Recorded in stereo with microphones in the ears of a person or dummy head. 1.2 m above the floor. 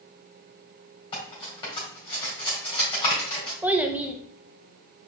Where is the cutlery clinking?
25° left (ahead or behind), 2 m.